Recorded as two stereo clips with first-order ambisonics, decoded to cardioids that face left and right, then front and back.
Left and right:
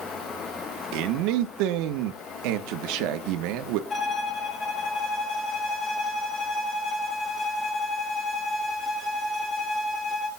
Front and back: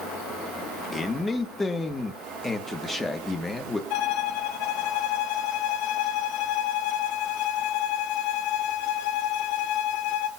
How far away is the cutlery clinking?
I don't hear cutlery clinking.